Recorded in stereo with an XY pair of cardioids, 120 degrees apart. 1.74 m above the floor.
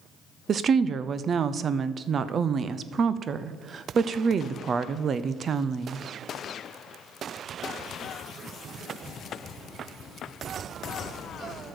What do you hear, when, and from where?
0.5 s a woman speaking: 45° right, 0.6 m